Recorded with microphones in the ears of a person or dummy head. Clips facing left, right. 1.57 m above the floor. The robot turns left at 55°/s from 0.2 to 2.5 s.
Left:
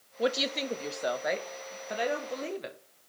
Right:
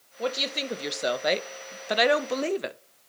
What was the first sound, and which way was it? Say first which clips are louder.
A woman speaking: left 1 dB; 15° left.